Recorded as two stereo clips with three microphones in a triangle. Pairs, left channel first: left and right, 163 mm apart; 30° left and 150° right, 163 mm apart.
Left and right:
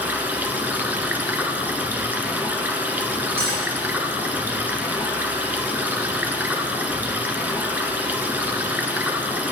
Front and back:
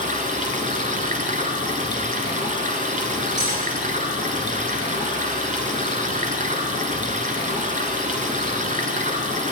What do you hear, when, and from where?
0.0 s running water: 170° right, 1.3 m
3.4 s cutlery clinking: 110° right, 4 m